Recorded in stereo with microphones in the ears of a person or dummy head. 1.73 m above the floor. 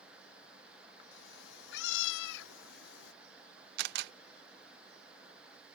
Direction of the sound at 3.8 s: 60° right (ahead or behind).